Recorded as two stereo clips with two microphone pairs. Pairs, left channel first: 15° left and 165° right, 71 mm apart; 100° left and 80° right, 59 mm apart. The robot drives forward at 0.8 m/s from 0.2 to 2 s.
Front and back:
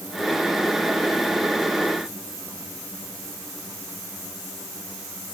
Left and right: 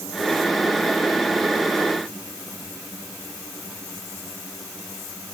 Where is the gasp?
No gasp in this recording.